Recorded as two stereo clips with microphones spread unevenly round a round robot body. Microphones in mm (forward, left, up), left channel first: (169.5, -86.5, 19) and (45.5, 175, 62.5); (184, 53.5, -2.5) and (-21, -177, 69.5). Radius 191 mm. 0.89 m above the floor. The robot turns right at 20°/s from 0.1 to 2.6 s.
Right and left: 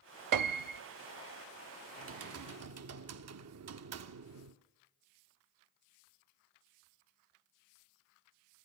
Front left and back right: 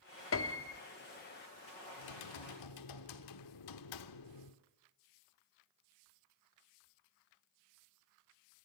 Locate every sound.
0.3 s a piano: 105° left, 0.8 m; by 0.8 s 115° left, 0.8 m
2.0 s typing on a keyboard: 70° left, 1.2 m; by 4.6 s 85° left, 1.2 m